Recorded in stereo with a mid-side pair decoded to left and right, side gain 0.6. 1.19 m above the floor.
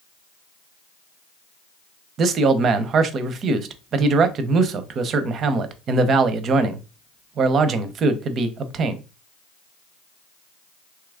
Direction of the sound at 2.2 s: 50° right.